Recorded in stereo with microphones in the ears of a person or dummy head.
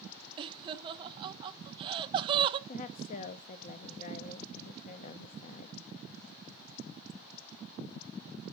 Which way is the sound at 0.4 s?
30° right (ahead or behind).